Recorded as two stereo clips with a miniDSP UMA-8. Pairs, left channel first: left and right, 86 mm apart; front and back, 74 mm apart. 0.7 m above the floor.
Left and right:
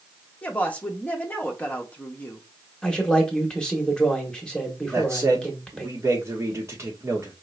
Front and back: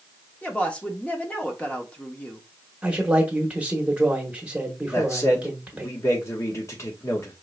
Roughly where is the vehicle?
I don't hear a vehicle.